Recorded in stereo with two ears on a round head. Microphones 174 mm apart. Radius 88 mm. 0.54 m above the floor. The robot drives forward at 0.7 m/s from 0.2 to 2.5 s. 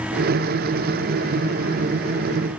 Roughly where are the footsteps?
I don't hear footsteps.